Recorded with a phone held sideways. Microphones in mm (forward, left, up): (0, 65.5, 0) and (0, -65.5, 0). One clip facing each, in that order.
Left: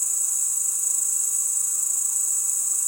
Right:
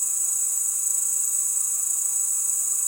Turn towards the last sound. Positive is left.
turn(degrees=5)  # may be behind; listen again after turning